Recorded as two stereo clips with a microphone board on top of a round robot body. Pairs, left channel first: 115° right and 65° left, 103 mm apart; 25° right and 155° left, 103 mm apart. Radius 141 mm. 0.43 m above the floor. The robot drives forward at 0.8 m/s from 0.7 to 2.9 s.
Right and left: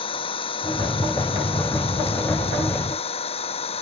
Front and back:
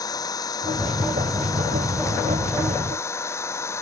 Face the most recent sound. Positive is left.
turn(degrees=-85)